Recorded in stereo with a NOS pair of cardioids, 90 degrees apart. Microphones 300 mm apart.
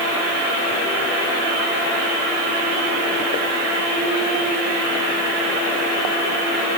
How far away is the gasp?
I don't hear a gasp.